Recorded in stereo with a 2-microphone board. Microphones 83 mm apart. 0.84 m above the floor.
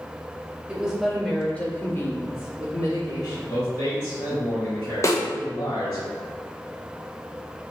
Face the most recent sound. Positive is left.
turn(degrees=40)  # may be behind; listen again after turning